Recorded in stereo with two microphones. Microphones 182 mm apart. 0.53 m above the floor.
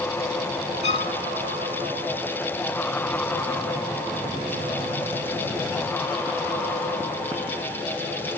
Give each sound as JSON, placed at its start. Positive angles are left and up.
{"t": 0.8, "sound": "a violin", "side_deg": -65}